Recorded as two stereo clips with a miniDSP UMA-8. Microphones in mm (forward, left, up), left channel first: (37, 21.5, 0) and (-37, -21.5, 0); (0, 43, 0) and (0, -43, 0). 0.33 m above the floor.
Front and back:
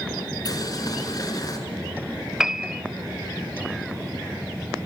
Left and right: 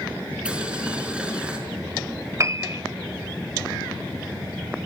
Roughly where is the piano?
Right.